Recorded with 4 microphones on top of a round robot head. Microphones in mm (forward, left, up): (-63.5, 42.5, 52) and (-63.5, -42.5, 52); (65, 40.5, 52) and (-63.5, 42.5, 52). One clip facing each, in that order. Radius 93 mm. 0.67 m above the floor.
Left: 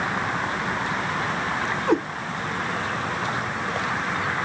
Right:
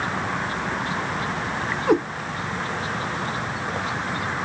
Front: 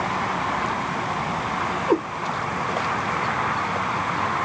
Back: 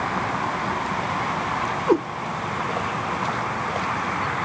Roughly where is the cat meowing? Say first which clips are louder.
Right 2 dB, back 2 dB; behind.